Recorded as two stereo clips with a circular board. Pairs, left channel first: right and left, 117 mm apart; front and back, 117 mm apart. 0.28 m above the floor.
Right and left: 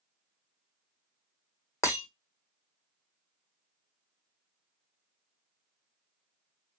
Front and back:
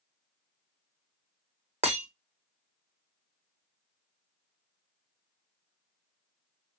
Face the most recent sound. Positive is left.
turn(degrees=-155)